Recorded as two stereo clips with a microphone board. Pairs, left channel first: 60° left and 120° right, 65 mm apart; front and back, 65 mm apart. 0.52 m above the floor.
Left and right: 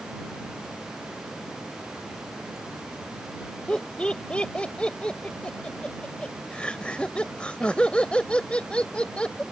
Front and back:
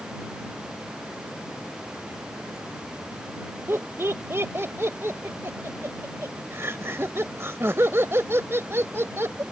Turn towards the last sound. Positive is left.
turn(degrees=135)